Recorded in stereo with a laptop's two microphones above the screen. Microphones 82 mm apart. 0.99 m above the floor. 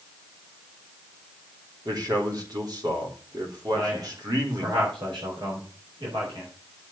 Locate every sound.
1.9 s a man speaking: 55° right (ahead or behind), 3.5 m
3.7 s a man speaking: 80° right, 4 m